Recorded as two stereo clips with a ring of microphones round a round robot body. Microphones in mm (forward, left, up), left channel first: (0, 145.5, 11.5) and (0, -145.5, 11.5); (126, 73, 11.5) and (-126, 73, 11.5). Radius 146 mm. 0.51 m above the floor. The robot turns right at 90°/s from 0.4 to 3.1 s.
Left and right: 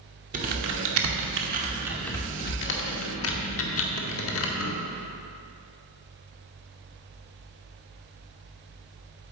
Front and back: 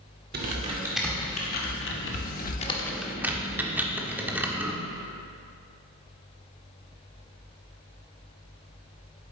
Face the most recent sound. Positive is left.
turn(degrees=100)